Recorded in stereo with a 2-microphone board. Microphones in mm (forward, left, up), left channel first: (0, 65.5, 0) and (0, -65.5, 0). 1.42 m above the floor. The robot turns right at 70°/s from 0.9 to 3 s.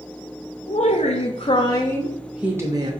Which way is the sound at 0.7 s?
85° left.